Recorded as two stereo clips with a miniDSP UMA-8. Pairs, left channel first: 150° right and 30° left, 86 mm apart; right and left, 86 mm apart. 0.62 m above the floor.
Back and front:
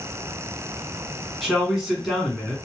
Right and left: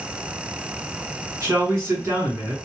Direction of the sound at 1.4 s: 115° left.